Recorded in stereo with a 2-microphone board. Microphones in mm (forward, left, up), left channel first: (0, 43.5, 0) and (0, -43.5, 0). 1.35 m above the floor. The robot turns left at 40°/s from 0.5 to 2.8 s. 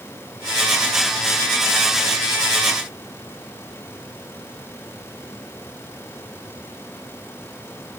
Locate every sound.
Only background noise.